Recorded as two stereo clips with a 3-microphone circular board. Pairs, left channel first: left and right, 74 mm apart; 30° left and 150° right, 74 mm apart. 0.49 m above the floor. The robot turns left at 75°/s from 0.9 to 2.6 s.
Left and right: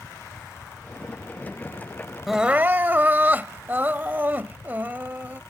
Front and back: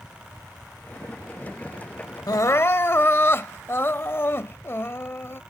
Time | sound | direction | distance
2.3 | crying | straight ahead | ?